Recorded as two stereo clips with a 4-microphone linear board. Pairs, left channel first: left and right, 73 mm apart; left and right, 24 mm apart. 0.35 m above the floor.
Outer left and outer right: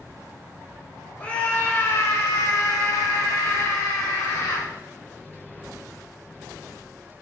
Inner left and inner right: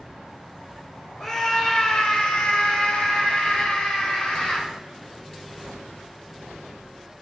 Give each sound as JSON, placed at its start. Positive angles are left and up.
{"t": 1.2, "sound": "a scream", "side_deg": 25, "distance_m": 1.3}